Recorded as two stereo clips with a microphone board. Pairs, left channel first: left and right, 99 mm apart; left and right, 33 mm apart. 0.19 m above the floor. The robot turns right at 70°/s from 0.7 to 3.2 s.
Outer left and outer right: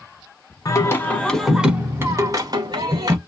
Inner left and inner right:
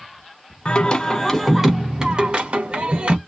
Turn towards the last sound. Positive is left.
turn(degrees=-60)